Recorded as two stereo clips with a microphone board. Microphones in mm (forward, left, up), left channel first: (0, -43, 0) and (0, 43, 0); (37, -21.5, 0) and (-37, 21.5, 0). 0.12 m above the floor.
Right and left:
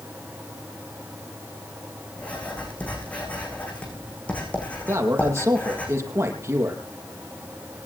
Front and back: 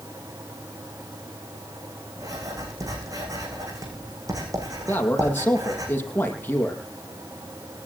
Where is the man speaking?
35° left, 4.5 m.